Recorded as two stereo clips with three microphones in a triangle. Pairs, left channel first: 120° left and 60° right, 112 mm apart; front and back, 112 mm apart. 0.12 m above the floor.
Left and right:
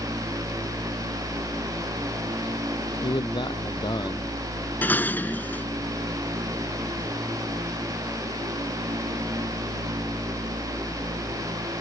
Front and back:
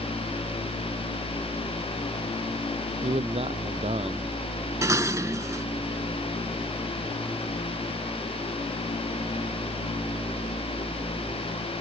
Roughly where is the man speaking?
Behind.